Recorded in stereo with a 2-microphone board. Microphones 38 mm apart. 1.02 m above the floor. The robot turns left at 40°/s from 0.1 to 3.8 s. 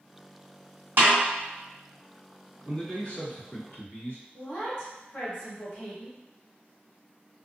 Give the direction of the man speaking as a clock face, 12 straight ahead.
6 o'clock.